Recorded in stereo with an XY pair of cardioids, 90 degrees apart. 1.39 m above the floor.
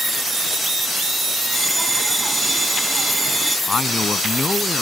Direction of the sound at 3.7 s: 30° left.